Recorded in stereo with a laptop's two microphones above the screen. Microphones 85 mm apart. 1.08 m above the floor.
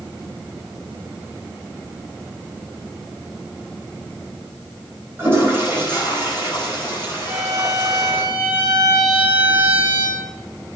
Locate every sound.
5.2 s a toilet flushing: 25° right (ahead or behind), 4.5 m
7.2 s a violin: 30° right (ahead or behind), 9.5 m